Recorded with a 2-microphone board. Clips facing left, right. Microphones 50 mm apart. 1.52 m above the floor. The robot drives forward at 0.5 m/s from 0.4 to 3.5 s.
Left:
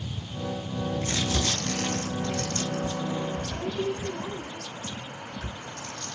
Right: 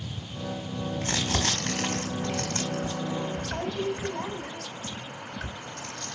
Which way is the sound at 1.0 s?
50° right (ahead or behind).